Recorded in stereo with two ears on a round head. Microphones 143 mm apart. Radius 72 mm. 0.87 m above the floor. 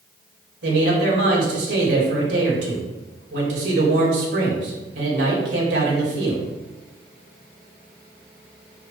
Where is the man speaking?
80° right, 4 m.